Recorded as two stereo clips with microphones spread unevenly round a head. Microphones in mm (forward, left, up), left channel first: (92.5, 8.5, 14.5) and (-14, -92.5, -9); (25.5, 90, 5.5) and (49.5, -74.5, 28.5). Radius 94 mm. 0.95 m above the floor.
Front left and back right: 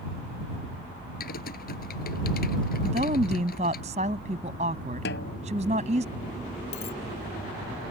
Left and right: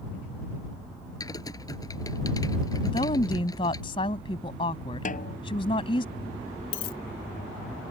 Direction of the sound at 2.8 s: 165° left.